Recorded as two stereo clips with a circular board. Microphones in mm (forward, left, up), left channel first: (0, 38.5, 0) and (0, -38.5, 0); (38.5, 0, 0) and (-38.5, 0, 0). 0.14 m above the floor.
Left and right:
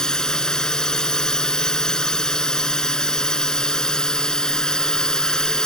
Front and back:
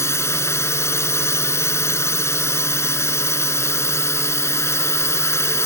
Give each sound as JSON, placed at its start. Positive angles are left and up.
{"t": 0.0, "sound": "a drone", "azimuth_deg": 15}